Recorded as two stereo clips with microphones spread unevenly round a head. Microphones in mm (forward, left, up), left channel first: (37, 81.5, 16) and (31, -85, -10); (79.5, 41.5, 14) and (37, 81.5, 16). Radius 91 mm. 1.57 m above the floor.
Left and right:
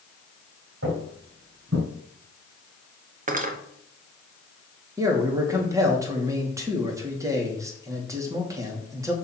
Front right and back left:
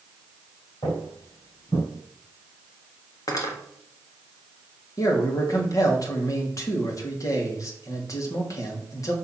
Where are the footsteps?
85° right, 4 m; by 1.9 s 90° right, 4.5 m.